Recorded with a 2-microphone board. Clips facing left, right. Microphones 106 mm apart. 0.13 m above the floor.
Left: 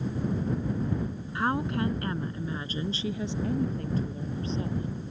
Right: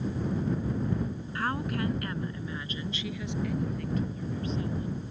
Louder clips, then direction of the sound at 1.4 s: Left 4 dB; 20° left (ahead or behind).